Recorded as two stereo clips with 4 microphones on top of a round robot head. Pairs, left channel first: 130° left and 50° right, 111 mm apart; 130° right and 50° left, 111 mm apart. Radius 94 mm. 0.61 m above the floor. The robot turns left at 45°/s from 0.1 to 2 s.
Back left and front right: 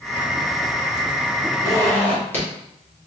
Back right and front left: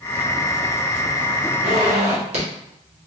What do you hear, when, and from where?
1.6 s a zipper: 75° left, 1.7 m; by 2.5 s 55° left, 1.7 m